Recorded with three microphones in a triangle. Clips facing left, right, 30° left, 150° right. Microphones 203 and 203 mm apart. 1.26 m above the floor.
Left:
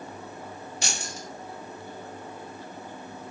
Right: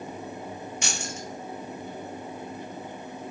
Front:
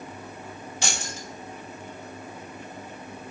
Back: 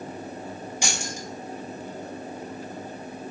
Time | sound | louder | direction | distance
0.8 | keys jangling | right 2 dB, even | 135° left | 0.8 m